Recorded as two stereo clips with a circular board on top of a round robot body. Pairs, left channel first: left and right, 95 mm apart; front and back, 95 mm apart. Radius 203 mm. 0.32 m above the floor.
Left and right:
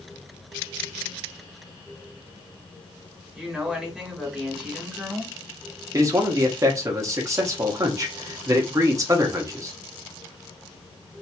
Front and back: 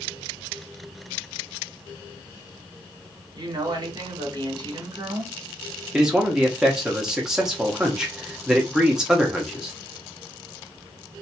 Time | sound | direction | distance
3.4 | a woman speaking | 170° right | 1.9 m
5.9 | a man speaking | 100° right | 1.2 m